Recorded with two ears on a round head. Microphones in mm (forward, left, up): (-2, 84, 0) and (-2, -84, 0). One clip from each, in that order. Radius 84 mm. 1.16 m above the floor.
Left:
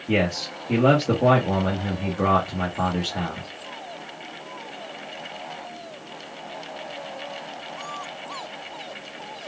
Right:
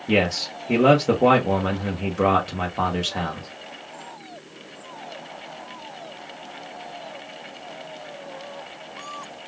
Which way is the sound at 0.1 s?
55° right (ahead or behind).